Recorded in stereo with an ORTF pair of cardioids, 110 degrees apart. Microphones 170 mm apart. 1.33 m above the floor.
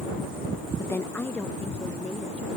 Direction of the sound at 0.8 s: 15° left.